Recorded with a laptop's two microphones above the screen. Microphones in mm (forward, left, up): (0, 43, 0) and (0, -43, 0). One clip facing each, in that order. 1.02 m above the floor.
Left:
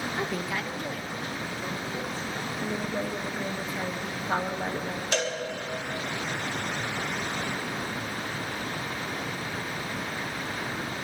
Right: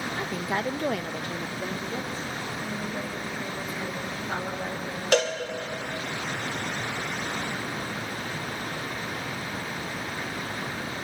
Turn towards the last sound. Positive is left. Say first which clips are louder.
# right 7 dB
turn(degrees=-70)  # may be behind; listen again after turning